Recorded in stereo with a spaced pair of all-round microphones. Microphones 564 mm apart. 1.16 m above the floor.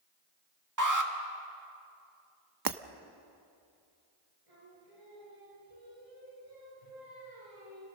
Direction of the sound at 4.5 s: 70° right (ahead or behind).